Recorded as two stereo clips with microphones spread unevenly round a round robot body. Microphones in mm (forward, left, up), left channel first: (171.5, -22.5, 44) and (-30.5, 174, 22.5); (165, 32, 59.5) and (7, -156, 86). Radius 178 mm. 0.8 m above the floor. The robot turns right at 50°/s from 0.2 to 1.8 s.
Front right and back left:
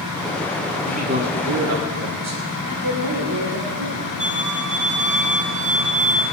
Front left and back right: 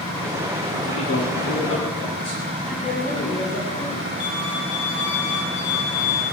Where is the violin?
70° left, 3.5 m.